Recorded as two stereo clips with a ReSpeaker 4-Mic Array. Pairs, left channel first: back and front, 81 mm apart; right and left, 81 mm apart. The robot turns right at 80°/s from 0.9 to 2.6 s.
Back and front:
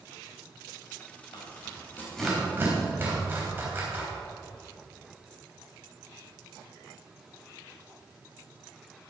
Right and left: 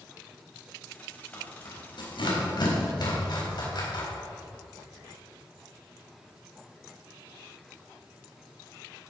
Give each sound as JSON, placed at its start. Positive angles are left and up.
{"t": 1.3, "sound": "tearing paper", "azimuth_deg": -165, "distance_m": 3.5}